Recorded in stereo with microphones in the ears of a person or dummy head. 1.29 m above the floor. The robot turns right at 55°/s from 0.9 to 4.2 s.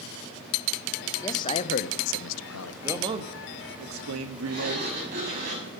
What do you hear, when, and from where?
1.2 s a man speaking: 20° left, 0.8 m; by 2.7 s 105° left, 0.8 m
2.8 s a man speaking: 165° right, 1.4 m; by 4.9 s 90° right, 1.4 m
4.5 s a sliding door: 60° right (ahead or behind), 7 m